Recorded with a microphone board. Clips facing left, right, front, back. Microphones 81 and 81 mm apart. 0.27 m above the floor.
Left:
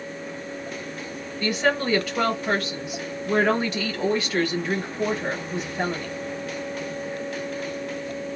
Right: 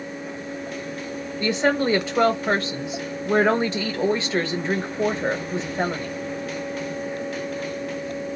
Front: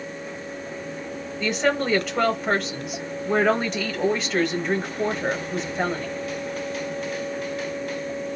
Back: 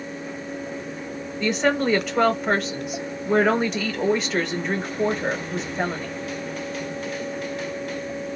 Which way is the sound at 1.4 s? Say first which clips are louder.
Right 2 dB, back 2 dB; 95° right.